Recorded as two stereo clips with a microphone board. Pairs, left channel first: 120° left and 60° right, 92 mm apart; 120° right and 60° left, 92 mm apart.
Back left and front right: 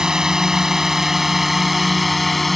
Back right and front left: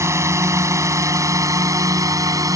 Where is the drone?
20° left; by 2.6 s 30° left.